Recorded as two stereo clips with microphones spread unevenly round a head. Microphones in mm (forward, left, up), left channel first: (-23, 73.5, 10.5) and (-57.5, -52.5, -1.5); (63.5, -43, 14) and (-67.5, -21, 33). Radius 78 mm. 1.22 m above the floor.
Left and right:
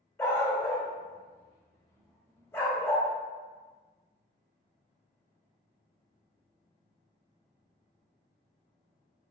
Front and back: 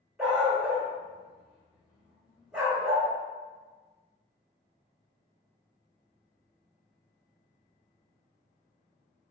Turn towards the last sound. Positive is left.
turn(degrees=105)